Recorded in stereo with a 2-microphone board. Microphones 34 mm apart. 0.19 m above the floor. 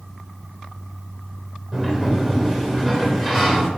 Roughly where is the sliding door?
Centre.